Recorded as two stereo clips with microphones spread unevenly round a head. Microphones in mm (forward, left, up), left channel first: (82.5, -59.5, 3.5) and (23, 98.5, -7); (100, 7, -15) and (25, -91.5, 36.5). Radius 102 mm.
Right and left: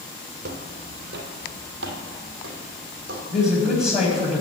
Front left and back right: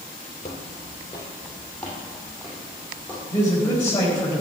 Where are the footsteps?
120° left, 1.5 m; by 3.2 s 160° left, 3.5 m.